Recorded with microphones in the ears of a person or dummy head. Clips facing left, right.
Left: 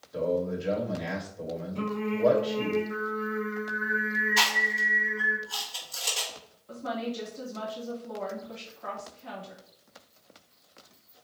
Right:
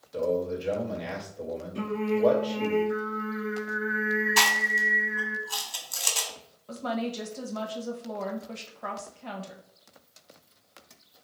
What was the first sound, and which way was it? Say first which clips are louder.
A man speaking: right 1 dB; 5° left (ahead or behind).